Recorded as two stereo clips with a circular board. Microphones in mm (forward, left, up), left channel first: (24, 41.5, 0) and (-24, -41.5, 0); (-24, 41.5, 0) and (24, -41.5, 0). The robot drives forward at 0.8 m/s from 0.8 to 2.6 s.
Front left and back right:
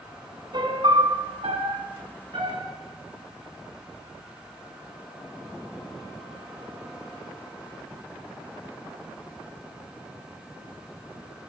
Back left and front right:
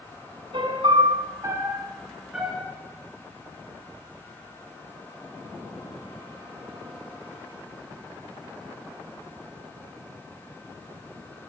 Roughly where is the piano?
Right.